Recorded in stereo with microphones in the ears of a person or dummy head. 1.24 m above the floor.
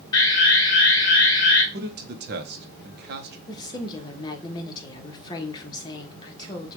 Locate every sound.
0.1 s an alarm: 20° left (ahead or behind), 1.1 m
1.7 s a man speaking: 45° right (ahead or behind), 0.8 m
3.5 s a woman speaking: 30° left (ahead or behind), 1.1 m